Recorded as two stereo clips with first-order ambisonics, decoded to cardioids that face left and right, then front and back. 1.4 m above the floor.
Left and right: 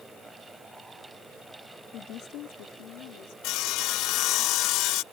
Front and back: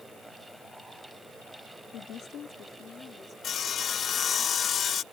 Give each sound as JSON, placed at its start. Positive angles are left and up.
{"t": 1.9, "sound": "a woman speaking", "azimuth_deg": 45}
{"t": 3.4, "sound": "sawing", "azimuth_deg": 60}